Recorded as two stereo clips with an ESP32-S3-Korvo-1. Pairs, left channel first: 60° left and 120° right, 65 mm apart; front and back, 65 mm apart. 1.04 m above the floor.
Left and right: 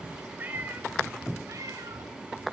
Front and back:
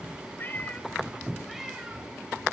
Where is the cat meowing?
60° right, 2.5 m; by 2.1 s 110° right, 2.5 m.